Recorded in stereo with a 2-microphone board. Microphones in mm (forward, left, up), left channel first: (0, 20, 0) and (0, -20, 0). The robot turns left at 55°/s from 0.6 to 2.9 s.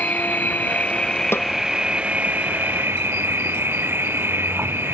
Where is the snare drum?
90° left; by 1.5 s 80° left.